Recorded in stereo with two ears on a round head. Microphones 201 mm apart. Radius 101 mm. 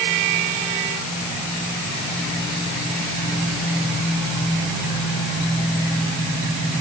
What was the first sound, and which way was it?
Only background noise.